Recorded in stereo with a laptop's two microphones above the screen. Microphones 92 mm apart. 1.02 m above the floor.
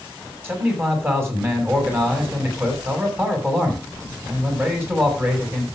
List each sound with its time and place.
0.4 s a man speaking: 25° right (ahead or behind), 7 m